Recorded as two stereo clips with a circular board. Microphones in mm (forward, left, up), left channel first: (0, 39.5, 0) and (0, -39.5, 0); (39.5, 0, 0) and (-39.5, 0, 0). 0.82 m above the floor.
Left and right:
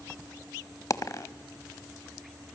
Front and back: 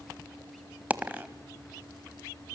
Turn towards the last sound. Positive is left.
turn(degrees=115)